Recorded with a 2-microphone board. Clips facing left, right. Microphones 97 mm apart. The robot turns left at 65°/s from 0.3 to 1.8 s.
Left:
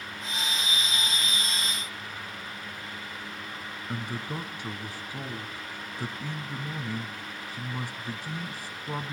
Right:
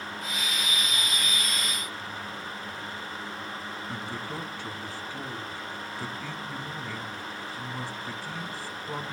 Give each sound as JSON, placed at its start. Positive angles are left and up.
{"t": 3.9, "sound": "a man speaking", "side_deg": 15, "distance_m": 1.0}